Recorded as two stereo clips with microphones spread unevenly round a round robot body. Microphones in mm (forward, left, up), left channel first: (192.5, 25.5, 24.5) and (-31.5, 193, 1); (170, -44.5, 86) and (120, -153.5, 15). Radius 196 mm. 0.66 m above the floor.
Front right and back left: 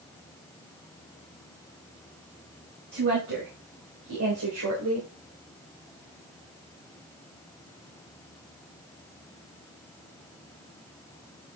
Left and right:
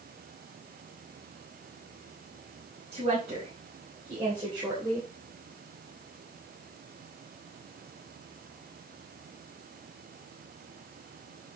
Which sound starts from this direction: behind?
A woman speaking, at 2.9 s.